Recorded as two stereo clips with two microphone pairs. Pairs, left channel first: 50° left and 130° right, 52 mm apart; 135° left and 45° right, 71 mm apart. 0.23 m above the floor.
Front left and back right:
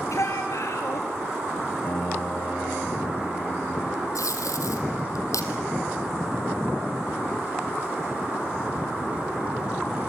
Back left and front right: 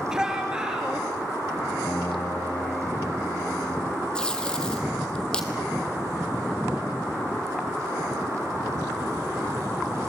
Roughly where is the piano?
Left.